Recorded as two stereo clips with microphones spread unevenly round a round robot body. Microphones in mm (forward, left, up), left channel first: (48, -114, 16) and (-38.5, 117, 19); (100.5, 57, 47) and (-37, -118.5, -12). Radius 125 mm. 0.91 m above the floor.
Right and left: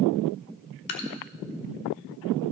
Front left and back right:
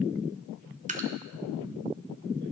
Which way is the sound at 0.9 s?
65° right.